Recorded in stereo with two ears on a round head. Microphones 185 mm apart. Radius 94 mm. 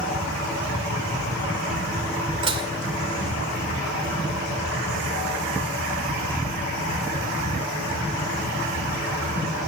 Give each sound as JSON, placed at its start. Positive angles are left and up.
{"t": 2.4, "sound": "dishes clattering", "side_deg": -25, "distance_m": 2.0}